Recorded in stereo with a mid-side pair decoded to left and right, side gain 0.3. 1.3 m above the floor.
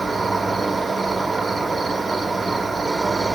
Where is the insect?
45° right, 0.9 m.